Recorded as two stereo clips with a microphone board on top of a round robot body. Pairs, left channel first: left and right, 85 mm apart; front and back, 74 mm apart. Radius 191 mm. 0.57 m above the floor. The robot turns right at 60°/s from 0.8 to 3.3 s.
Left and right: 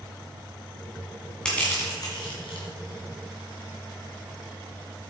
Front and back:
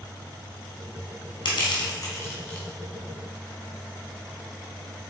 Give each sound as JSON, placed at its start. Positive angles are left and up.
{"t": 1.4, "sound": "crushing", "azimuth_deg": 10, "distance_m": 1.7}